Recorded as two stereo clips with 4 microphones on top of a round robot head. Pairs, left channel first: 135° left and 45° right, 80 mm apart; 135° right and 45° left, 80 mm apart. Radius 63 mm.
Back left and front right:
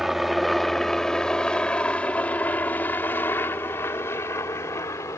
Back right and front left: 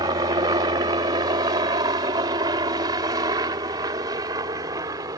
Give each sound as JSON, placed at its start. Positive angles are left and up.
{"t": 0.0, "sound": "a helicopter", "azimuth_deg": 40}